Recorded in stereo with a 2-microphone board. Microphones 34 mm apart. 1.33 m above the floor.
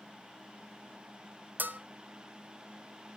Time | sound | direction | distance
1.6 | a bell | 60° right (ahead or behind) | 0.9 m